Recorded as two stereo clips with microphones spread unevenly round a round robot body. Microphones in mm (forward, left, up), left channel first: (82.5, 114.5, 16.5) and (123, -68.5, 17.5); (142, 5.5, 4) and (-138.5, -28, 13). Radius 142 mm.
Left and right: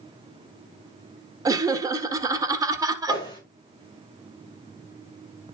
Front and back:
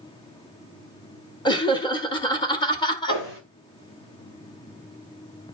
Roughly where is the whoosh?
Ahead left.